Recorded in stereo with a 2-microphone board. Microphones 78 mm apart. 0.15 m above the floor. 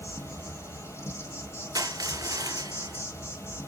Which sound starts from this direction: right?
Crushing, at 1.8 s.